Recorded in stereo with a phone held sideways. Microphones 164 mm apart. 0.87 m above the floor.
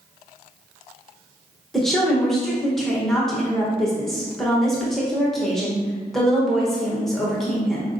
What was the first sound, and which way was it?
A woman speaking, centre (ahead or behind).